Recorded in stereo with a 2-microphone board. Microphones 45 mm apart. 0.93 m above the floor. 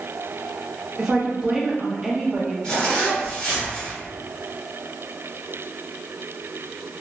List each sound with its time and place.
1.0 s a woman speaking: 15° right (ahead or behind), 1.0 m
2.6 s a zipper: 20° left (ahead or behind), 1.5 m